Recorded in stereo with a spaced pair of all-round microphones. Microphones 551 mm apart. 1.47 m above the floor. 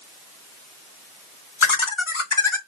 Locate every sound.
1.6 s laughter: 60° left (ahead or behind), 1.0 m